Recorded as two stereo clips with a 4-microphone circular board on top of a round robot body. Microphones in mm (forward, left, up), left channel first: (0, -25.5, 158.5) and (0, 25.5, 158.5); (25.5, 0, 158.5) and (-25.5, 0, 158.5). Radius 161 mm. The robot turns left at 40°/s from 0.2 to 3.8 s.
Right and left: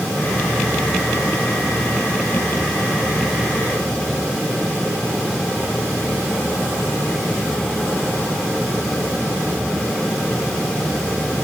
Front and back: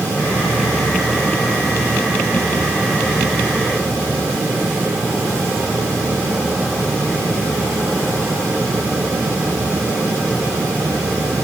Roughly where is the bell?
I don't hear a bell.